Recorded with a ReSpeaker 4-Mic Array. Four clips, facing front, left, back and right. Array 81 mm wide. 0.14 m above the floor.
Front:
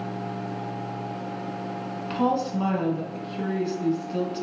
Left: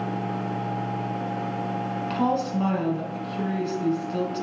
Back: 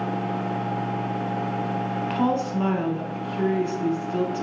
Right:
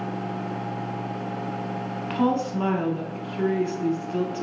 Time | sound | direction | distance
2.1 | a woman speaking | 125° right | 1.1 m